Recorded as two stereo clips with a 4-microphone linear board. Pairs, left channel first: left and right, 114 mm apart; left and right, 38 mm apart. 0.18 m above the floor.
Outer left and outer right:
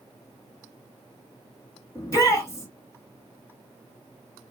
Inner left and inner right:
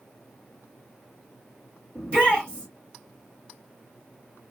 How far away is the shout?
About 1.9 m.